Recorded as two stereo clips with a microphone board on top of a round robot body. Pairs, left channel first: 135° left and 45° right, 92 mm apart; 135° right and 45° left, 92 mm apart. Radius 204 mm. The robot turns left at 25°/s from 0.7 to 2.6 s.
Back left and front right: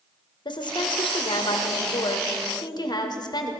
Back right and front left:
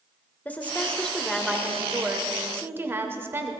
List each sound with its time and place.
0.5 s a woman speaking: 155° left, 1.6 m; by 3.5 s 105° left, 1.6 m